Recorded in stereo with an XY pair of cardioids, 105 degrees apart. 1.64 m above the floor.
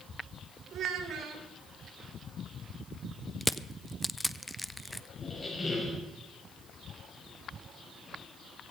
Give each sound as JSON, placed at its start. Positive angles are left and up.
{"t": 0.7, "sound": "a child speaking", "azimuth_deg": -65, "distance_m": 3.5}
{"t": 3.4, "sound": "crushing", "azimuth_deg": 5, "distance_m": 0.5}
{"t": 5.2, "sound": "a squeak", "azimuth_deg": 20, "distance_m": 6.0}